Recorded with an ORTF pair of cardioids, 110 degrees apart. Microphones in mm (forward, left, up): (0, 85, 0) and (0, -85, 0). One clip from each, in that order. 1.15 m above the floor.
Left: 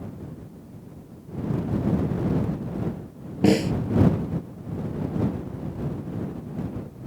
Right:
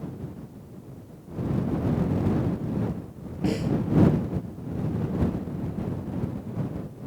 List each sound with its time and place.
3.4 s a snare drum: 50° left